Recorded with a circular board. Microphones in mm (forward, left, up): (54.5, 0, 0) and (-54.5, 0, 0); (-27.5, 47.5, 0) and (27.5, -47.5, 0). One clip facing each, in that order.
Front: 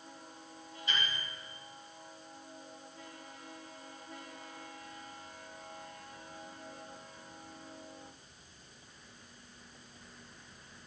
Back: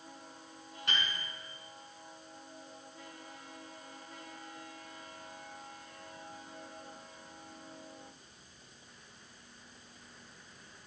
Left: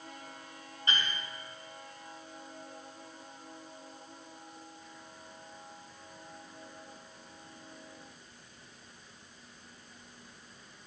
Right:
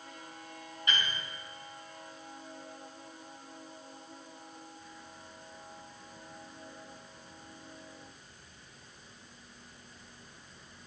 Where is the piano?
175° left, 5.5 m.